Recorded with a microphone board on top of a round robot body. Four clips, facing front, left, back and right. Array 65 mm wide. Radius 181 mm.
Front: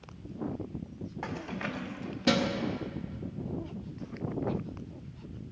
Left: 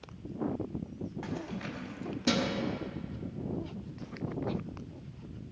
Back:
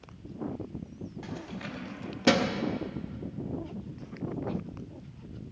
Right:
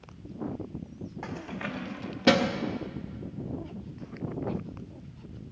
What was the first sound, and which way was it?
Keys jangling, 20° right.